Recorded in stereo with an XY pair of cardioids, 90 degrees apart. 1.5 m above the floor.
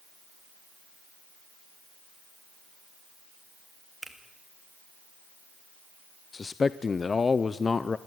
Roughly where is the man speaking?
Ahead left.